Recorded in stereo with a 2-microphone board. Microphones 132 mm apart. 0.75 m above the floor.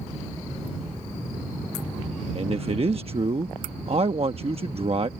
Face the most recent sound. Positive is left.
turn(degrees=-50)  # may be behind; listen again after turning